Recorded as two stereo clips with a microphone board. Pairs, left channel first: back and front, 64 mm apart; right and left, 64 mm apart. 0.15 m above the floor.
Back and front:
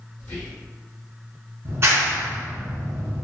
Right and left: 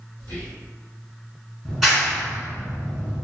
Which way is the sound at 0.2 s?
145° right.